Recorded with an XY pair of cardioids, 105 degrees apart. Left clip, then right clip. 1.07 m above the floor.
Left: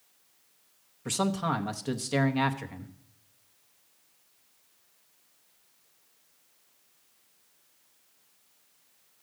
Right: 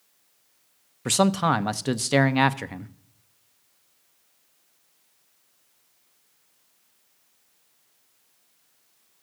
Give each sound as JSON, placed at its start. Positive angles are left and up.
{"t": 1.1, "sound": "a man speaking", "azimuth_deg": -55, "distance_m": 0.6}